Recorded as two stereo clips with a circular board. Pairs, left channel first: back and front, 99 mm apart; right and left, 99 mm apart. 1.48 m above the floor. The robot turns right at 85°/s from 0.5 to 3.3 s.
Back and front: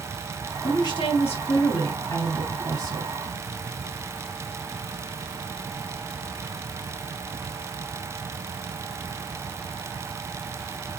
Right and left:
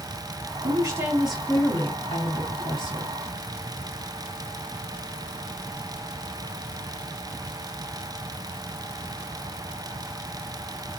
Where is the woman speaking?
120° left, 3 m; by 3.2 s 25° right, 3 m.